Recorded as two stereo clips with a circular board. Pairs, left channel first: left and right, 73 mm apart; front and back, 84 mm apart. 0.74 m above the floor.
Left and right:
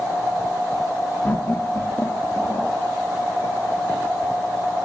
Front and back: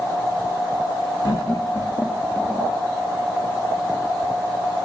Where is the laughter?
30° left, 1.6 m; by 2.7 s 80° left, 1.0 m.